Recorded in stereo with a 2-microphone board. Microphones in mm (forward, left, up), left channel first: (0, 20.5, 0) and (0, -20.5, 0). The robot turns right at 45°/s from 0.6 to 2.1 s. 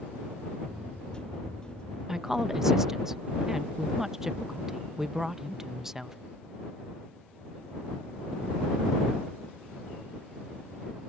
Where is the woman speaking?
10° right (ahead or behind).